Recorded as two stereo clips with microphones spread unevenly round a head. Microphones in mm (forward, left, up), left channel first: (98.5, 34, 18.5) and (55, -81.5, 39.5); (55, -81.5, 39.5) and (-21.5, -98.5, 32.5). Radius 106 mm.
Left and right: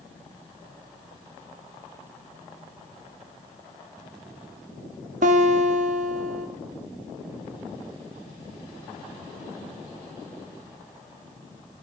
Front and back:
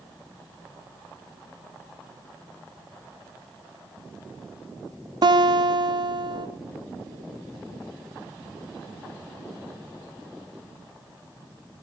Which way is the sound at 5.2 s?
150° right.